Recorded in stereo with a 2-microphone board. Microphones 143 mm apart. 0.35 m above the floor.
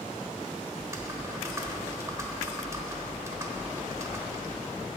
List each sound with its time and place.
0.8 s typing on a keyboard: 20° right (ahead or behind), 1.1 m